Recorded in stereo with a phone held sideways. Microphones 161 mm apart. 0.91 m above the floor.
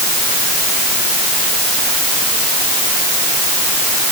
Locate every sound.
Only background noise.